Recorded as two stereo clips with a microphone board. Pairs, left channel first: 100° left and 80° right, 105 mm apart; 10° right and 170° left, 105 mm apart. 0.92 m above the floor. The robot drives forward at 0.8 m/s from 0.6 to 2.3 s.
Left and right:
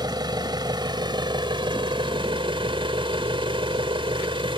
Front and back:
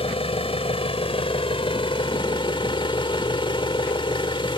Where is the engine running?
30° right; by 4.6 s 45° right.